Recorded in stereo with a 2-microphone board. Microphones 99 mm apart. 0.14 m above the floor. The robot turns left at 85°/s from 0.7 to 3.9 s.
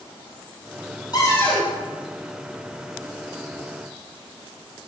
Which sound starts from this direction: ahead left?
A cupboard door, at 1.1 s.